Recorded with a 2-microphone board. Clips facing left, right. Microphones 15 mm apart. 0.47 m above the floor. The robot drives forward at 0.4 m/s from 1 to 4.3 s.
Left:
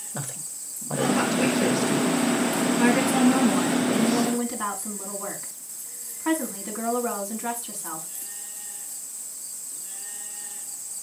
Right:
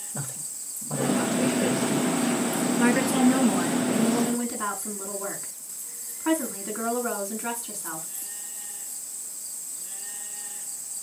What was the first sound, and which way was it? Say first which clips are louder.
A woman speaking: left 2 dB; 20° left (ahead or behind).